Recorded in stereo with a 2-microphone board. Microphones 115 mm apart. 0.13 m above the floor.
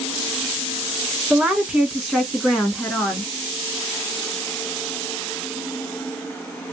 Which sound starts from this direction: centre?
A woman speaking, at 1.3 s.